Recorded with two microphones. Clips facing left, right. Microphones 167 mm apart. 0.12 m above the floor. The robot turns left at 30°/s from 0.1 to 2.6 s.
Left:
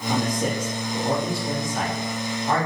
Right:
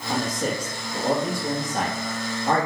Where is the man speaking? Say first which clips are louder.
Left 2 dB; 15° left, 3 m; by 2.7 s 60° right, 3 m.